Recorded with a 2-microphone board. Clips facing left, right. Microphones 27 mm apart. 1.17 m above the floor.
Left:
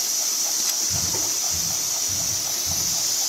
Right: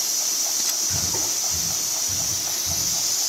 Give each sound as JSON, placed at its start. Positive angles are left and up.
{"t": 0.9, "sound": "breathing", "side_deg": -70, "distance_m": 3.5}